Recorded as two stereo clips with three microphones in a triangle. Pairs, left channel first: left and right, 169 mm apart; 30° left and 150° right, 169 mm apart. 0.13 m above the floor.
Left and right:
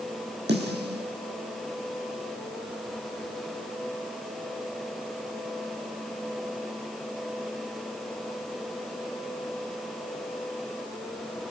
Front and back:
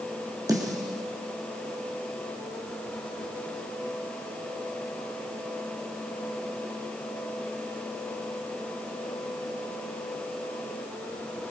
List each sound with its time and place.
0.5 s a snare drum: 80° right, 5.5 m